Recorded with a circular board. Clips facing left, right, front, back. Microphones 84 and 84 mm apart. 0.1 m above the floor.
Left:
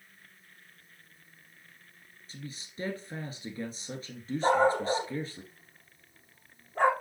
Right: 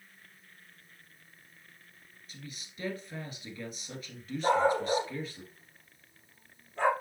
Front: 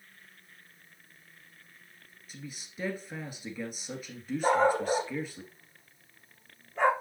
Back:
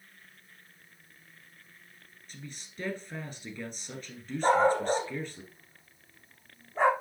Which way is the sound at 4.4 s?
125° left.